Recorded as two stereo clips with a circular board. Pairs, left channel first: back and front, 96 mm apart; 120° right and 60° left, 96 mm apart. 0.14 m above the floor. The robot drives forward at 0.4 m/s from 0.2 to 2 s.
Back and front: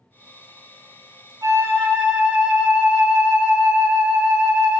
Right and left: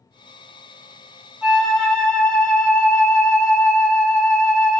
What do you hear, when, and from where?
1.4 s a flute: 25° right, 0.7 m; by 4.8 s 55° right, 0.6 m